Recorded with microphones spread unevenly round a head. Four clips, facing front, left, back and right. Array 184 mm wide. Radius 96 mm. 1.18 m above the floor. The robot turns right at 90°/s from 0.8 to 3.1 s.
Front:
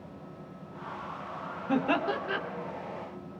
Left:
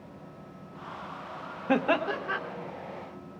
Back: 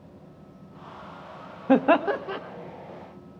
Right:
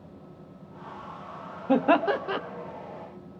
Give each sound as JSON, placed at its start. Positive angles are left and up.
{"t": 1.7, "sound": "laughter", "azimuth_deg": -175, "distance_m": 1.0}